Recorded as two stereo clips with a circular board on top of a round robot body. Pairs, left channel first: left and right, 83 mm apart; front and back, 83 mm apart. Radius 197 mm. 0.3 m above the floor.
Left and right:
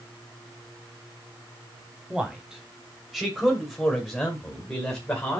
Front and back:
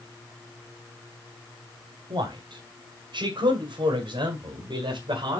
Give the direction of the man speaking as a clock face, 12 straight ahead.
6 o'clock.